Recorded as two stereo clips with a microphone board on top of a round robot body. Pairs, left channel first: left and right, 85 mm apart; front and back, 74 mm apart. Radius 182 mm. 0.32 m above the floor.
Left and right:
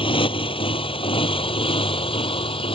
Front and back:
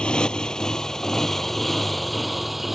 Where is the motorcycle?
80° left; by 2.8 s 90° left.